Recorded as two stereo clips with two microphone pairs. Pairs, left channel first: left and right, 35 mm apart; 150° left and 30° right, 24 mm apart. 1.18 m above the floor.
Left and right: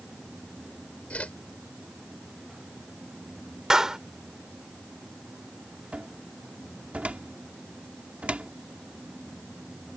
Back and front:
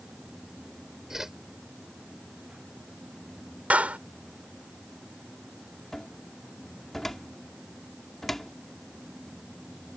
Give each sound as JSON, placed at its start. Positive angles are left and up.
{"t": 1.1, "sound": "a whoosh", "azimuth_deg": 45}
{"t": 3.7, "sound": "a clap", "azimuth_deg": -10}
{"t": 5.9, "sound": "a cupboard door", "azimuth_deg": -135}